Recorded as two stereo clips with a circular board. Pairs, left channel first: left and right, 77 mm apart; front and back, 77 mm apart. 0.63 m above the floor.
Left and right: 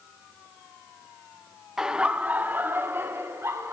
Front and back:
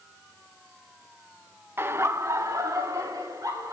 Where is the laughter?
165° right, 0.6 m; by 3.7 s 140° right, 1.4 m.